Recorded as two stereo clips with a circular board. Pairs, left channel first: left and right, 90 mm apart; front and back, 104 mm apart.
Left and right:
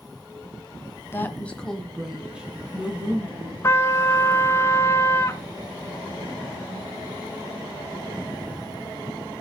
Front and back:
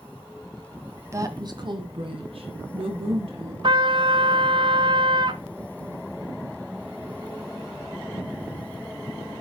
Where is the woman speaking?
135° left, 1.4 m; by 3.5 s 160° right, 3.5 m.